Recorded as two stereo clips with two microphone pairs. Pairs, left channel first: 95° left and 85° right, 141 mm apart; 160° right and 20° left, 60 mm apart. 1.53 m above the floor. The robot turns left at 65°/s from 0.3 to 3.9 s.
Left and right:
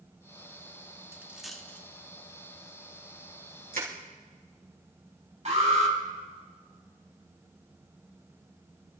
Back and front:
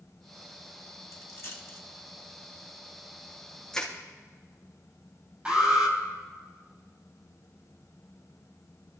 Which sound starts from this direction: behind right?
A dropped coin, at 1.1 s.